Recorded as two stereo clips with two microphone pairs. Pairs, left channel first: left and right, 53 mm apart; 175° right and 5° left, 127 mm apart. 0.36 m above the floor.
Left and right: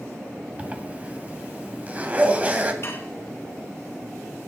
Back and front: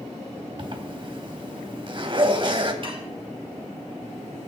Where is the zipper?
35° right, 2 m.